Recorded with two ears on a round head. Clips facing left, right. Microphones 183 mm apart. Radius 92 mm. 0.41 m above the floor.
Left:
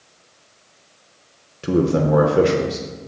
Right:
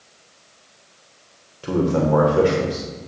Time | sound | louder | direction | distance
1.6 | a man speaking | left 2 dB | 25° left (ahead or behind) | 0.9 m